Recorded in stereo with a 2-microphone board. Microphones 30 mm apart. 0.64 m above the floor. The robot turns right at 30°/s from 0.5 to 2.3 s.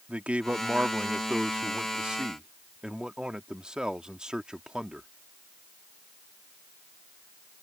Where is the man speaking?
95° right; by 5.1 s 40° right.